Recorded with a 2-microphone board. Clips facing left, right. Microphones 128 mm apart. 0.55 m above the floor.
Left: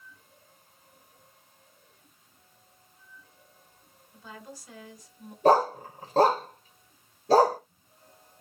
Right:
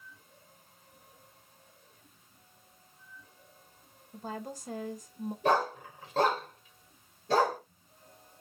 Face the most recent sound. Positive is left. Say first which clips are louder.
# left 7 dB
turn(degrees=35)  # may be behind; listen again after turning